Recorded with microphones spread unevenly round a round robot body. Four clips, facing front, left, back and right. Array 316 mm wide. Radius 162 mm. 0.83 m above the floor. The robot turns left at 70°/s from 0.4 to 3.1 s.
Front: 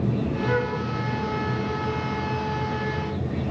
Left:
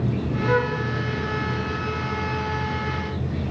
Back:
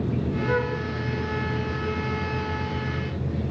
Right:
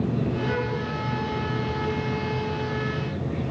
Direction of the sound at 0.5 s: 90° left.